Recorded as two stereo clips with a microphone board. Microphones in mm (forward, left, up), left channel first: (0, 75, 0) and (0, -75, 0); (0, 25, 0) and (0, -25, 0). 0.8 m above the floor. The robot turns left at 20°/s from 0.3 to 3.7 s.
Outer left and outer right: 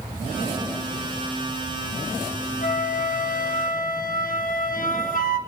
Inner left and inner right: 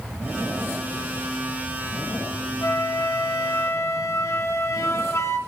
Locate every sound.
2.6 s a flute: 60° left (ahead or behind), 0.7 m; by 5.4 s 65° left (ahead or behind), 0.7 m